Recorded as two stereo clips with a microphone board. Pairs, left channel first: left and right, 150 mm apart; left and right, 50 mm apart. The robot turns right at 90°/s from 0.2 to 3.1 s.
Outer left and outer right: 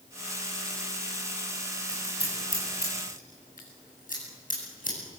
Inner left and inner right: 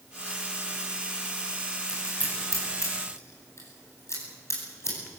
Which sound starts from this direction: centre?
Scissors, at 1.9 s.